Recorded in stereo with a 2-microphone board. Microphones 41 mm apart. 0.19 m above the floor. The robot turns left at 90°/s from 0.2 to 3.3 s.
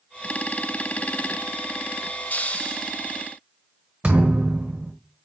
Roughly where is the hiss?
Left.